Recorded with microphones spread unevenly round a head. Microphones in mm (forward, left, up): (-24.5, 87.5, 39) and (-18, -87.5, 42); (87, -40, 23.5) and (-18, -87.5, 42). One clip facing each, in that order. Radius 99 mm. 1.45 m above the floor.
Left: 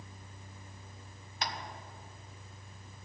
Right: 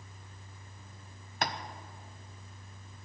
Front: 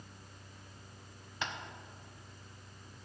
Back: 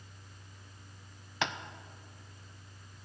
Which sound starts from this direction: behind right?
Tapping, at 1.4 s.